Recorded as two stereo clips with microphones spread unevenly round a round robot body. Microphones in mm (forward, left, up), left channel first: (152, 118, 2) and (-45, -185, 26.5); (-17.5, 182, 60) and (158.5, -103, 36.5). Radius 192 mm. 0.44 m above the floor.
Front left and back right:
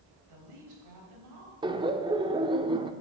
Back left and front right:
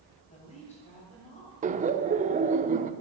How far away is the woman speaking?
About 3 m.